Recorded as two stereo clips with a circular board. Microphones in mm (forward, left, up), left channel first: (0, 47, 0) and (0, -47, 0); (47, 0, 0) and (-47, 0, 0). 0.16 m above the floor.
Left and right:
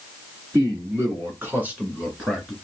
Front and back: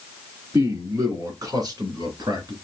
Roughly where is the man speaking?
Behind right.